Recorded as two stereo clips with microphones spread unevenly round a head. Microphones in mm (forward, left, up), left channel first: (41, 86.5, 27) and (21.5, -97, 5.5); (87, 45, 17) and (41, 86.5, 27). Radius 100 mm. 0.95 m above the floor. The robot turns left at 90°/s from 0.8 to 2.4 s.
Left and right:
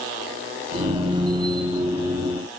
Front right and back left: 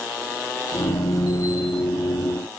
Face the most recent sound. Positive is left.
No sound to turn to.